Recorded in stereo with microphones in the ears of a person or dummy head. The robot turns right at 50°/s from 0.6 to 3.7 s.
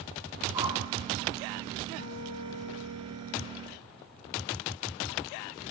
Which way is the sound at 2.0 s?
50° left.